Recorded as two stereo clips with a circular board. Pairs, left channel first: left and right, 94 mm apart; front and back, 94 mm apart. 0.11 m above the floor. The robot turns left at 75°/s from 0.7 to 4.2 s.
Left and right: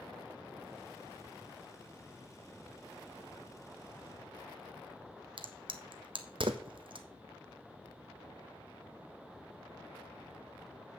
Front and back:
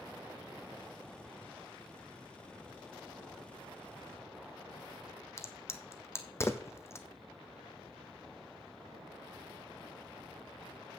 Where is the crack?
60° right, 1.0 m.